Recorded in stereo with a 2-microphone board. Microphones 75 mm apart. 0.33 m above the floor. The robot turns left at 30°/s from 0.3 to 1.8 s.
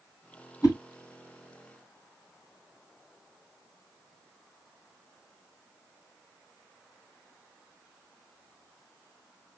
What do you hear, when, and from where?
0.6 s a whoosh: 45° left (ahead or behind), 1.7 m; by 0.8 s 50° left (ahead or behind), 1.7 m